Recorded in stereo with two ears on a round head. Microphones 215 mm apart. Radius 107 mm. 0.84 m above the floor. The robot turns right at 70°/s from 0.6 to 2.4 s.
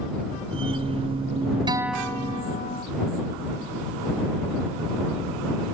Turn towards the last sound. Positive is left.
turn(degrees=30)